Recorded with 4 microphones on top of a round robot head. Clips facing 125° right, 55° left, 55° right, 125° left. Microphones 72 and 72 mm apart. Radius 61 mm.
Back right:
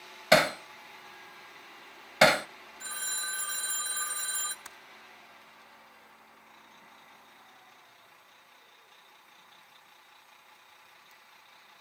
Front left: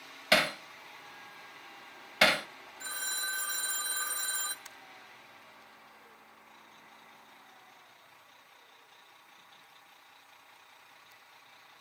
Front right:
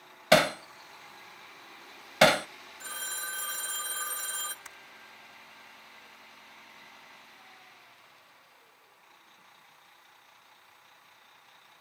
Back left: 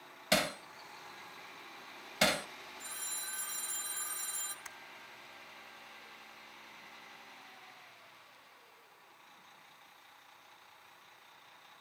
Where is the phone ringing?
20° right, 1.1 m.